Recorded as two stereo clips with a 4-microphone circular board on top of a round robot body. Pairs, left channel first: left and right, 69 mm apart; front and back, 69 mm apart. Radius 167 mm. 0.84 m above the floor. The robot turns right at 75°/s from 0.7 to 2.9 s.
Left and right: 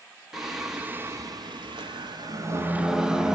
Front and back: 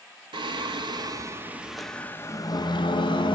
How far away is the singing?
About 1.0 m.